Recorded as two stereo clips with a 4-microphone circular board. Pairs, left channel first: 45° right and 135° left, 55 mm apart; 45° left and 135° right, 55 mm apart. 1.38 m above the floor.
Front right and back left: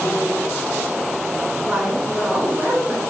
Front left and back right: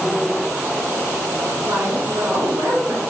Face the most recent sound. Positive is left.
turn(degrees=-155)